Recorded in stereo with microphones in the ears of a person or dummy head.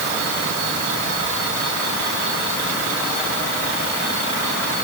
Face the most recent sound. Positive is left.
No sound to turn to.